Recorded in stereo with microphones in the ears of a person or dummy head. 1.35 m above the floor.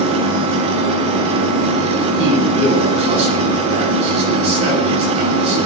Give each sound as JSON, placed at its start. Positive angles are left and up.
{"t": 0.0, "sound": "an engine running", "side_deg": -50, "distance_m": 8.0}
{"t": 2.2, "sound": "a man speaking", "side_deg": -30, "distance_m": 8.5}